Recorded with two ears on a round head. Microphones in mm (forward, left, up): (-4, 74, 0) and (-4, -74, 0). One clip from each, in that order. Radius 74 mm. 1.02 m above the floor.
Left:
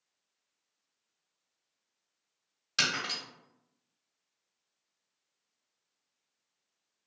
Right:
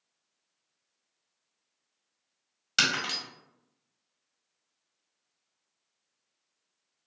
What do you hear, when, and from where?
2.8 s breaking glass: 25° right (ahead or behind), 1.6 m